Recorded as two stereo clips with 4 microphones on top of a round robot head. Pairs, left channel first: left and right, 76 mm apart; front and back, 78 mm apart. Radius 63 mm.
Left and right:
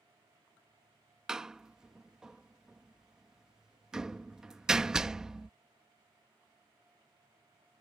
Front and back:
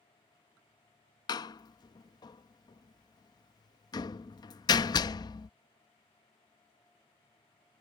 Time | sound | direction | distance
1.3 | a door slam | 10° right | ?